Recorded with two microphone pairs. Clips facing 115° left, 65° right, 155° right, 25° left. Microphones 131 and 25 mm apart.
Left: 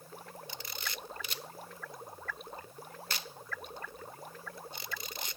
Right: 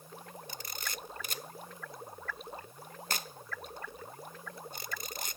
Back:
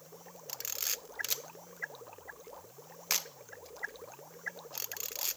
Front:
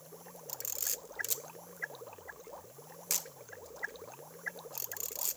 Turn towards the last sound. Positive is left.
turn(degrees=-105)